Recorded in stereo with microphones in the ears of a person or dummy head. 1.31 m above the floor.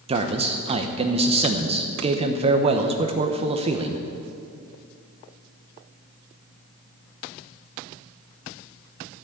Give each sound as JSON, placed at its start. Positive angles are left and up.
{"t": 0.1, "sound": "a man speaking", "side_deg": -30, "distance_m": 0.9}